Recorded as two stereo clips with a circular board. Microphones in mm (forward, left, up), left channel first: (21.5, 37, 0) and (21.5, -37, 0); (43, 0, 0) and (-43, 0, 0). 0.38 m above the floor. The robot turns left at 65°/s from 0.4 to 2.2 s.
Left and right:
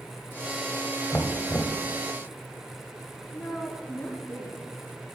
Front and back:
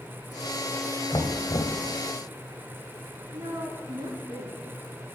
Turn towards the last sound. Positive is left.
turn(degrees=170)